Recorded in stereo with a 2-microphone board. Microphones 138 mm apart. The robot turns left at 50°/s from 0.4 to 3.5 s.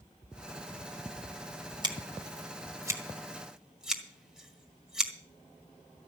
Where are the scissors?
30° right (ahead or behind), 1.7 m; by 5.1 s 5° right (ahead or behind), 1.7 m.